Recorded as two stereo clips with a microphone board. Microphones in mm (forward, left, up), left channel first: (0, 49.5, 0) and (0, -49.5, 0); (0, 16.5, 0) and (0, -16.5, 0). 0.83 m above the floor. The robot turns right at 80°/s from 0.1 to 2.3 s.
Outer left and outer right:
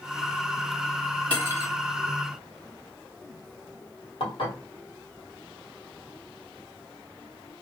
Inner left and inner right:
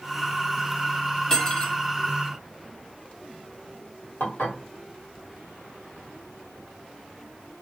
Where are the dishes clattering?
65° left (ahead or behind), 1.3 m.